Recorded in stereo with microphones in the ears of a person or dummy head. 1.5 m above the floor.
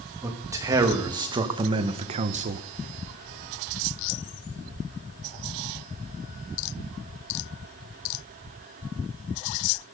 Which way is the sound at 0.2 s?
10° right (ahead or behind).